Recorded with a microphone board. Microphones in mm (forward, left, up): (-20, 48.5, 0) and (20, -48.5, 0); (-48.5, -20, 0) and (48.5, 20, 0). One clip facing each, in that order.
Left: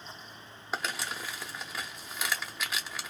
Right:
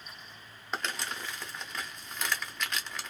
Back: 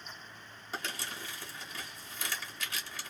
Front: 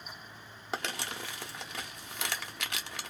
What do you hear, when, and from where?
0.7 s crumpling: 30° left, 0.7 m